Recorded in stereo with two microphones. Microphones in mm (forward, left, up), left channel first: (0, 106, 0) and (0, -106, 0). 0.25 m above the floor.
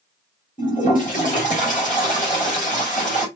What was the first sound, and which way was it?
A toilet flushing, 40° left (ahead or behind).